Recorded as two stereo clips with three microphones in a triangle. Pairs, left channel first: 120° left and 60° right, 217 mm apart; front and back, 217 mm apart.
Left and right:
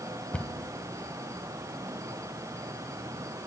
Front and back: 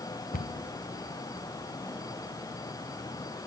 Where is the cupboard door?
35° left, 1.0 m.